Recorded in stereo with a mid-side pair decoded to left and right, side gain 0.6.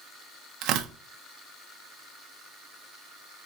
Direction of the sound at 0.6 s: 65° right.